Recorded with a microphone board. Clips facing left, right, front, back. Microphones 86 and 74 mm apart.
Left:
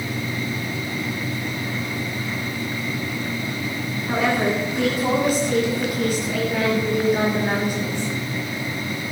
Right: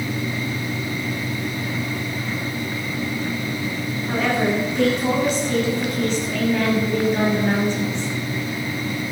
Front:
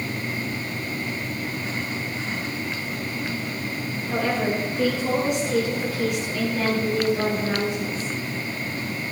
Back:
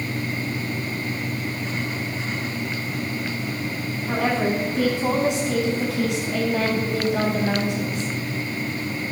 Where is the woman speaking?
170° left, 7.5 m.